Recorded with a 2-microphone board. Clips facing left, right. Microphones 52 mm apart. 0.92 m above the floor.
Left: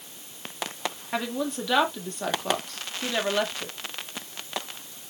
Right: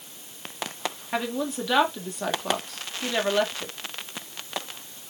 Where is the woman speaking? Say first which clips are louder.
Right 1 dB; 5° right (ahead or behind), 2.0 m.